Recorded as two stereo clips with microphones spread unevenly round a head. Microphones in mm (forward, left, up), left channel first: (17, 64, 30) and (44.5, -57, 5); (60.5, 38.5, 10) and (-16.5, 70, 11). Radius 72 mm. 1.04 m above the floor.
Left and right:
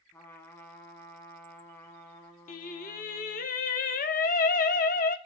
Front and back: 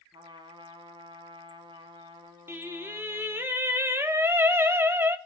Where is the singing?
95° left, 1.2 m.